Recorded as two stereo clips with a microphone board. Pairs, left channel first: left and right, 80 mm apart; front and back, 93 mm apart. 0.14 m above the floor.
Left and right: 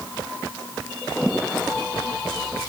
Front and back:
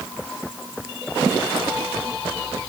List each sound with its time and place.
Only background noise.